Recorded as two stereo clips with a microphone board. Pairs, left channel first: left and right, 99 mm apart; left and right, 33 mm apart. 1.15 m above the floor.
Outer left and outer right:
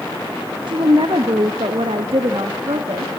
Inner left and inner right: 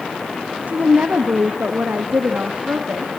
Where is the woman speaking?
55° right (ahead or behind), 1.1 m; by 3.1 s 85° right, 1.9 m.